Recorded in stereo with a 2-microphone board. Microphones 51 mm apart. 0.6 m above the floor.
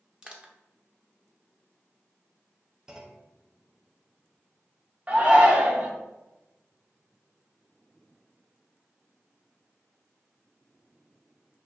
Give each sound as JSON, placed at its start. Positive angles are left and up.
{"t": 0.2, "sound": "crushing", "side_deg": -20, "distance_m": 0.7}
{"t": 2.9, "sound": "a clunk", "side_deg": -10, "distance_m": 0.6}
{"t": 5.1, "sound": "a shout", "side_deg": -25, "distance_m": 0.9}